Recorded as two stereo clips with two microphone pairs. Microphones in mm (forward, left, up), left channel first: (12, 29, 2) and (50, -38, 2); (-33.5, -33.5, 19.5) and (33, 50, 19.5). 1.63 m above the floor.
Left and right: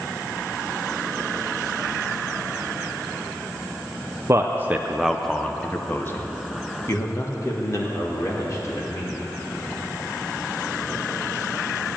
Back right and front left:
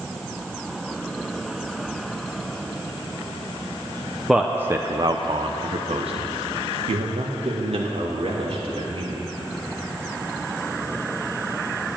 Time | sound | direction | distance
4.3 | a man speaking | 35° right | 0.6 m